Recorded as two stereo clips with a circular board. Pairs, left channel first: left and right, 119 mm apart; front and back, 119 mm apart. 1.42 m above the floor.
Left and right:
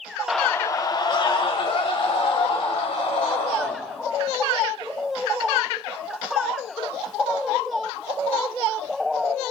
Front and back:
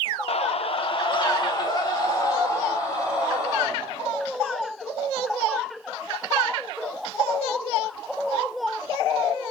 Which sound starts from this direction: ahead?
A scream, at 0.3 s.